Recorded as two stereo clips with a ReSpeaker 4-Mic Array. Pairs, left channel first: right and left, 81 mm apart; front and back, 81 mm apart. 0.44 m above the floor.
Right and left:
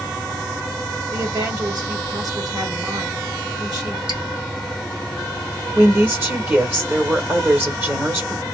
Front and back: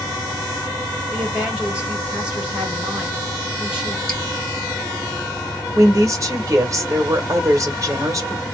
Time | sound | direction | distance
1.1 | a woman speaking | 105° left | 2 m
4.1 | dripping | 80° left | 1.6 m
5.8 | a woman speaking | 145° left | 1.2 m